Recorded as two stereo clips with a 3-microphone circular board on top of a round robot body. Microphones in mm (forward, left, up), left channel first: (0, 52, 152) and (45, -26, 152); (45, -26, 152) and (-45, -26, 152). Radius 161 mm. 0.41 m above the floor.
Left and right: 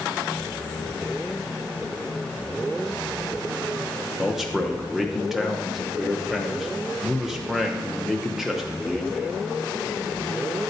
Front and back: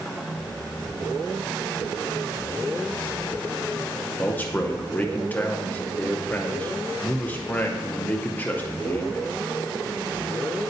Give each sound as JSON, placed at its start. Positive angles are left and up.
{"t": 4.2, "sound": "a man speaking", "azimuth_deg": 20, "distance_m": 0.8}